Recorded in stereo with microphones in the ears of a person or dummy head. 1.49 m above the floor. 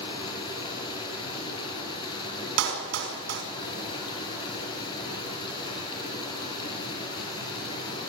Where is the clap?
85° right, 5 m.